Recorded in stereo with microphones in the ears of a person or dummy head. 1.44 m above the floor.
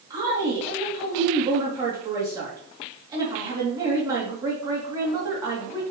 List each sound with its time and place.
0.1 s a woman speaking: 20° right (ahead or behind), 3 m